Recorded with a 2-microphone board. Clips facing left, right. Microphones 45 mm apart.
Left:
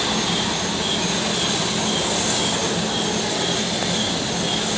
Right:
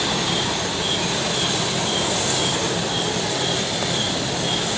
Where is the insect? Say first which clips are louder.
Even; 10° right (ahead or behind), 1.0 m.